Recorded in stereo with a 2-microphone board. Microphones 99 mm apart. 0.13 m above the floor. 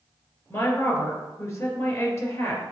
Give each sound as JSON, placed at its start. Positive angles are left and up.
{"t": 0.5, "sound": "a woman speaking", "side_deg": 30, "distance_m": 2.5}